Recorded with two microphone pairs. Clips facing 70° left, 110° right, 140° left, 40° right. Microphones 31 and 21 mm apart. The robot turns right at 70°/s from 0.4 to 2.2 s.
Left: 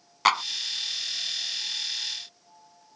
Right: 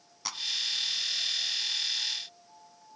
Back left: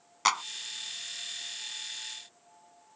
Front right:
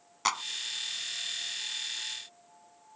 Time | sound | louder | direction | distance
0.2 | a clap | left 16 dB, back left 3 dB | 70° left | ?